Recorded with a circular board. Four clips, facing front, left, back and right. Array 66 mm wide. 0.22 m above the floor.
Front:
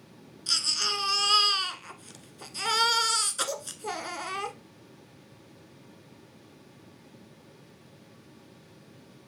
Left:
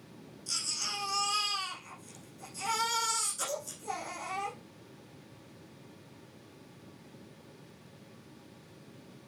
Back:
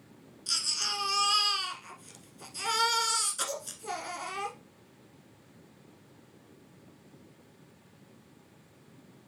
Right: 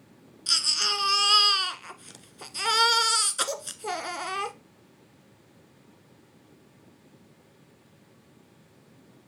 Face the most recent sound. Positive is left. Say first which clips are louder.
# right 11 dB, front 4 dB
turn(degrees=-70)